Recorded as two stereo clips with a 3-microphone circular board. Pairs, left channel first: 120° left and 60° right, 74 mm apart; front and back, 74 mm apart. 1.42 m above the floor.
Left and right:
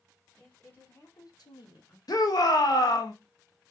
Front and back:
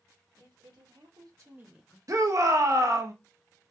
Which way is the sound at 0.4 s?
170° right.